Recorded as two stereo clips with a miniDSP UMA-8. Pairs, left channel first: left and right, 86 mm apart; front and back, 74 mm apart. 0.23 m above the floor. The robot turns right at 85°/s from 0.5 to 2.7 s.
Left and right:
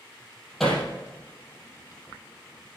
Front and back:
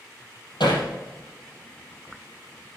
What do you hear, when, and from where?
0.6 s hammering: straight ahead, 4.5 m; by 0.9 s 25° left, 4.5 m